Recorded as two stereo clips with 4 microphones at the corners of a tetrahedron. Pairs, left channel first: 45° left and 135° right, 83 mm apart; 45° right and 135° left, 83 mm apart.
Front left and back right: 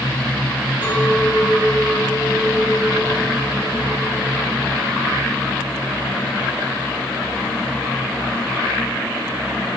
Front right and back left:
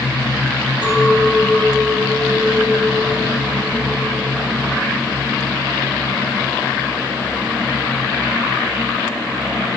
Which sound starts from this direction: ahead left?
A clink, at 0.8 s.